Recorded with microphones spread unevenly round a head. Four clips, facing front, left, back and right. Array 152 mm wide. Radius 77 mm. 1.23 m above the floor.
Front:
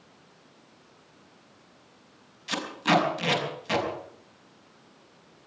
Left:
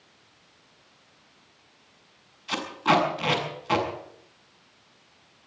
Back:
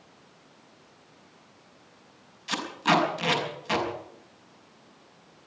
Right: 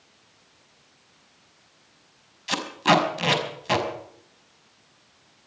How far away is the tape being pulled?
About 5.5 m.